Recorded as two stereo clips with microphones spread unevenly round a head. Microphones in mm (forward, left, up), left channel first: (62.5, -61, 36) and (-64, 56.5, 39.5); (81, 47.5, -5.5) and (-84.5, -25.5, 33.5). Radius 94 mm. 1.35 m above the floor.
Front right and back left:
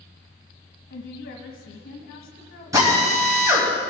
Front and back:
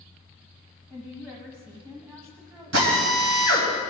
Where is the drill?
150° right, 3.5 m.